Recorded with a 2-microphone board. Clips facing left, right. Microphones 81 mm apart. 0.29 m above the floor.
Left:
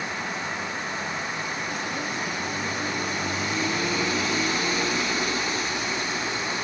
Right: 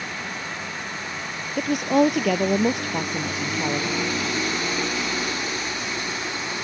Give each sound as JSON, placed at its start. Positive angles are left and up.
{"t": 1.6, "sound": "a woman speaking", "side_deg": -80}